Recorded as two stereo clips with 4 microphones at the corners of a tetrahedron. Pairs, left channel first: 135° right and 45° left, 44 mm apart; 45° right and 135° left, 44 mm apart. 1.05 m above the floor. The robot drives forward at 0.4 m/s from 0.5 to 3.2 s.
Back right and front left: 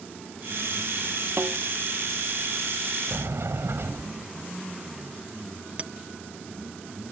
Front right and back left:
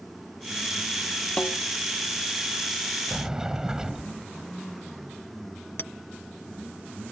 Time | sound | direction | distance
1.4 | a snare drum | 15° left | ?
3.1 | a sliding door | 55° left | ?
5.8 | a clink | 15° right | ?